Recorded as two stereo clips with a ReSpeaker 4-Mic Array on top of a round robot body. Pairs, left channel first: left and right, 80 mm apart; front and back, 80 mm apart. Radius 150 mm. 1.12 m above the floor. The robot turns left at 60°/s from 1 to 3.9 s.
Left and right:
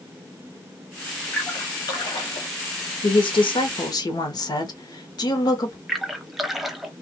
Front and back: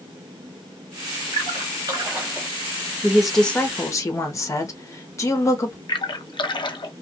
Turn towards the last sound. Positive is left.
turn(degrees=0)